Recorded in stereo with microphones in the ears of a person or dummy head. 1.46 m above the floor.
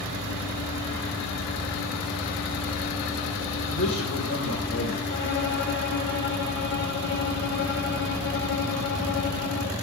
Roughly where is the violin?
Left.